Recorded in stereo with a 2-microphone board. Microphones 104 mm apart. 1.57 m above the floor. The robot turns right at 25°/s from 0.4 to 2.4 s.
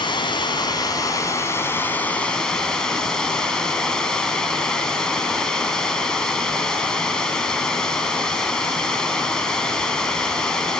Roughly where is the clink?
No clink in this recording.